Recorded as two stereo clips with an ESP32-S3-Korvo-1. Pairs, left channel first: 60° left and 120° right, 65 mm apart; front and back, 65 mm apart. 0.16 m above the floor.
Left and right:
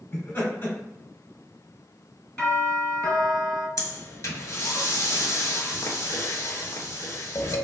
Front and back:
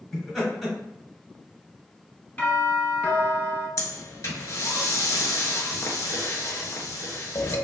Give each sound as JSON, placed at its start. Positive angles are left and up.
{"t": 0.1, "sound": "laughter", "azimuth_deg": 90, "distance_m": 1.9}
{"t": 2.4, "sound": "a doorbell", "azimuth_deg": 15, "distance_m": 2.0}
{"t": 3.8, "sound": "breathing", "azimuth_deg": 35, "distance_m": 0.7}